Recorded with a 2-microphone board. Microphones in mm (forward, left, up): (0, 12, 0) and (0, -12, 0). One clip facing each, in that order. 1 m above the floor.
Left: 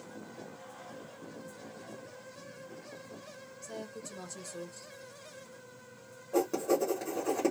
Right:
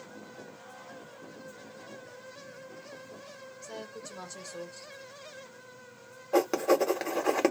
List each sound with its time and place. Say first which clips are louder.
3.6 s a woman speaking: even; 25° right (ahead or behind), 1.3 m
6.3 s writing: right 4 dB; 70° right (ahead or behind), 0.9 m